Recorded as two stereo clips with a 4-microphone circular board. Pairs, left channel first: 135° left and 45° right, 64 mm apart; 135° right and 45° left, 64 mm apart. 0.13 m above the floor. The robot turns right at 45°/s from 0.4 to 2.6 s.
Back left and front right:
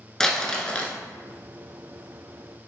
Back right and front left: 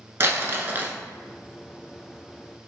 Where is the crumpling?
60° left, 0.7 m; by 0.9 s 85° left, 0.7 m.